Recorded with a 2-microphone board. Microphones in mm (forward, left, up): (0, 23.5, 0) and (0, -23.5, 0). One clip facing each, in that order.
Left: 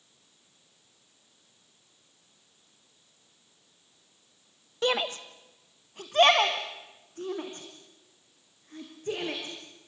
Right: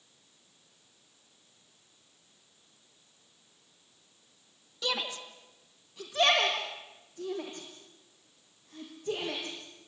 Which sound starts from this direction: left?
A shout, at 4.8 s.